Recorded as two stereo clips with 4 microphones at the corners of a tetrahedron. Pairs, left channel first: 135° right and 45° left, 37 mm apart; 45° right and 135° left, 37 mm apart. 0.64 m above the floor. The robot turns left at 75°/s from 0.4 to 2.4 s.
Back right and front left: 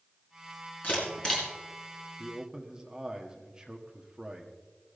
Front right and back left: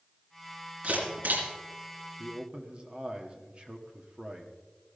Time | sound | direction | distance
0.8 | a camera shutter | 170° right | 4 m
2.2 | a man speaking | 115° left | 1.4 m